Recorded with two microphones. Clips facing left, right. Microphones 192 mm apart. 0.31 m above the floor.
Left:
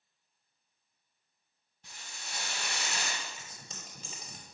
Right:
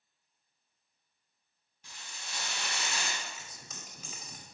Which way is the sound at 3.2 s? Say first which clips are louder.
Even; 35° left (ahead or behind).